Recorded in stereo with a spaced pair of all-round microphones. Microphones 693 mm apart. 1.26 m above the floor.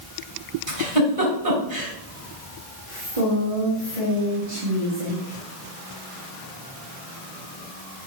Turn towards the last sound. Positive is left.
turn(degrees=-85)